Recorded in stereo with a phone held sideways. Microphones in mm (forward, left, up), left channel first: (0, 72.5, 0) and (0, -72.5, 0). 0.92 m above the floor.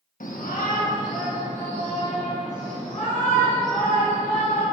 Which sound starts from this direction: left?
A shout, at 0.2 s.